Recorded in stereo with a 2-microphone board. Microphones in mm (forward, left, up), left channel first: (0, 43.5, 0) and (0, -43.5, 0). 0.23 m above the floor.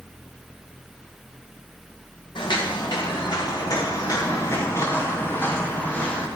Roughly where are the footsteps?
Left.